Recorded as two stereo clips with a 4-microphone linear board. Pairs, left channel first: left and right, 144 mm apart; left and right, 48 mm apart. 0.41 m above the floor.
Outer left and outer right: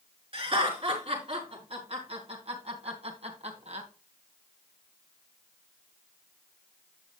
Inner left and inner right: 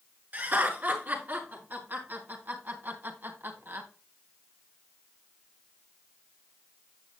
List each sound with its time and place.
0.3 s laughter: 40° right (ahead or behind), 5 m; by 3.9 s 50° right (ahead or behind), 2.5 m